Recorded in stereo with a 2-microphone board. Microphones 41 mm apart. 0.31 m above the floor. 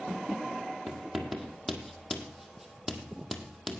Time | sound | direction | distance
0.9 | writing | centre (ahead or behind) | 1.7 m